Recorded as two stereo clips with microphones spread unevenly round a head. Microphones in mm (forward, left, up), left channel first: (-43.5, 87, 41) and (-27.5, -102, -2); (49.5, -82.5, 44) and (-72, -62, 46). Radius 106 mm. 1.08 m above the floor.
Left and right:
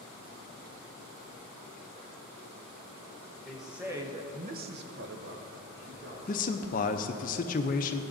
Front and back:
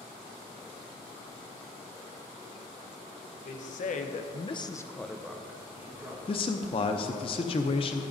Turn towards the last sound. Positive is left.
turn(degrees=40)